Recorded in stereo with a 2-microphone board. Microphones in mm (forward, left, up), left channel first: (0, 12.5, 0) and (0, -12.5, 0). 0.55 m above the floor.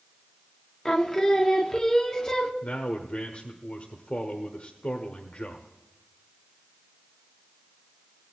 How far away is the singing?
About 1.3 m.